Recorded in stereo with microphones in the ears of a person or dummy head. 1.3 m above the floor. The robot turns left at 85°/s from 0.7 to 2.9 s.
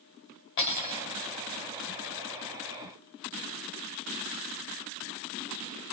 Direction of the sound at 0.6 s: 60° left.